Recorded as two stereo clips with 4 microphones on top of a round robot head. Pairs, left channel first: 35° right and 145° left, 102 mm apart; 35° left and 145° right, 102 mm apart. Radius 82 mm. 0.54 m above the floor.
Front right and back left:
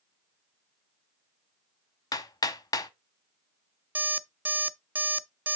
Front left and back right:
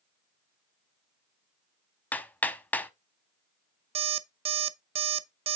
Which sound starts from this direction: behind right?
An alarm clock, at 4.0 s.